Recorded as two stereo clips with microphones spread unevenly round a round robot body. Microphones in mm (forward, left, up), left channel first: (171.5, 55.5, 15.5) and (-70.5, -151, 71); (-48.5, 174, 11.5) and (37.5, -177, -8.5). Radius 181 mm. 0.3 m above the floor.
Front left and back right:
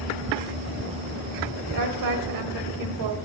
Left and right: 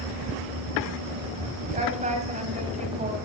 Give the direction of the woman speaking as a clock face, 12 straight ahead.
5 o'clock.